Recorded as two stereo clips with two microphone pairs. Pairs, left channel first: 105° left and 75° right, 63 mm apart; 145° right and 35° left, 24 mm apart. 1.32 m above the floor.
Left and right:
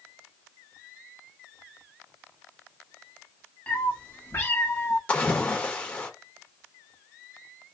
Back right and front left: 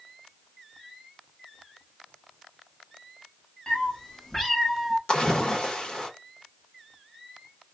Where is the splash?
170° left, 1.1 m.